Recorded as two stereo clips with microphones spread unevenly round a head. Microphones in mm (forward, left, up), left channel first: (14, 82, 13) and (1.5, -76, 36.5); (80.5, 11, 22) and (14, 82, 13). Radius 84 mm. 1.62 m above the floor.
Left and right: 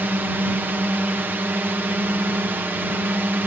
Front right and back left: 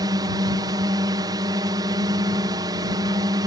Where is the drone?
175° right.